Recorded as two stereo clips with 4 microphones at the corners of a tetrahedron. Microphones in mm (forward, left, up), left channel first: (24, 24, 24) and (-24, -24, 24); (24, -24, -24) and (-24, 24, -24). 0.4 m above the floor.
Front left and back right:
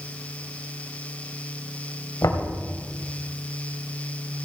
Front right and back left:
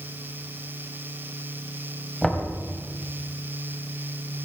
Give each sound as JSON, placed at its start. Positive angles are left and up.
{"t": 2.2, "sound": "knocking", "azimuth_deg": 40, "distance_m": 2.5}